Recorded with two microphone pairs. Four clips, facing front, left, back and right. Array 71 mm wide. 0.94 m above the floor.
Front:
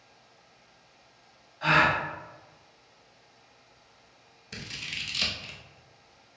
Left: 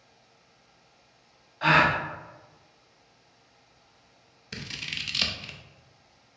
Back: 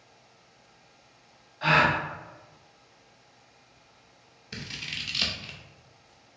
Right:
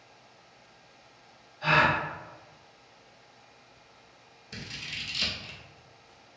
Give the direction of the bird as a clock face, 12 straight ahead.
No bird in this recording.